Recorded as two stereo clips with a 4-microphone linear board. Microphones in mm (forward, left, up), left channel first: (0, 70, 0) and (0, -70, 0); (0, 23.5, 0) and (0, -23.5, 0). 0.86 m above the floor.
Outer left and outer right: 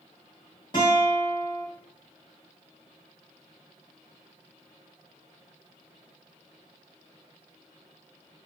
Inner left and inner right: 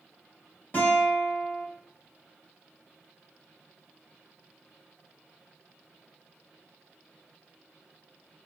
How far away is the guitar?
About 2 m.